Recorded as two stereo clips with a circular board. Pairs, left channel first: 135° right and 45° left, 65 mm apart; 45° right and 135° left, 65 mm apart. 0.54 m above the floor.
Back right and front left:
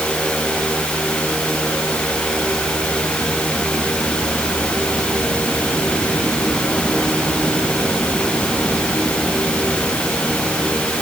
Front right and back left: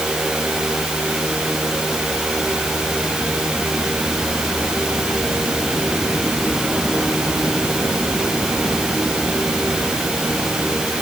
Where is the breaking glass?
I don't hear breaking glass.